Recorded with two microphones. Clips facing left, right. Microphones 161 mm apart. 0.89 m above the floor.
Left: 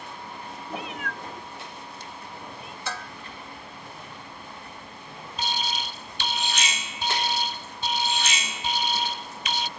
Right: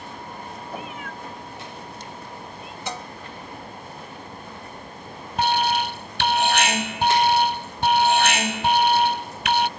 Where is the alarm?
70° right (ahead or behind).